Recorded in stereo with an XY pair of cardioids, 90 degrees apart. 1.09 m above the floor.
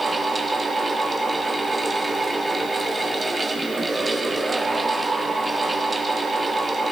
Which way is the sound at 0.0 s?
20° right.